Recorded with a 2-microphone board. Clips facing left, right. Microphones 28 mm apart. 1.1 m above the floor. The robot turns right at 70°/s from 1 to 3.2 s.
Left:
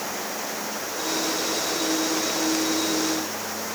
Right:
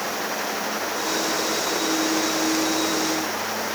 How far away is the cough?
No cough in this recording.